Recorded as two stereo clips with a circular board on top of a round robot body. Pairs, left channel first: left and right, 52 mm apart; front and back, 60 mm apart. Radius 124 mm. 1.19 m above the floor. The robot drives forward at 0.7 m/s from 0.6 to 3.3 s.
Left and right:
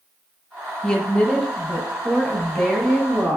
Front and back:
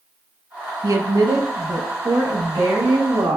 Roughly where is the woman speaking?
Behind.